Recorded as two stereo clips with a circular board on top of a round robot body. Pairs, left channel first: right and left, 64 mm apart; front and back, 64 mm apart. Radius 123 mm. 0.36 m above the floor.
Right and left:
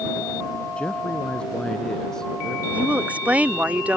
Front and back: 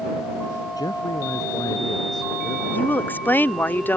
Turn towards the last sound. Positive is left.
turn(degrees=35)